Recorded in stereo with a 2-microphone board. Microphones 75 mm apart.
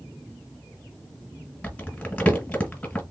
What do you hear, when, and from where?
1.6 s crumpling: 20° left (ahead or behind), 1.8 m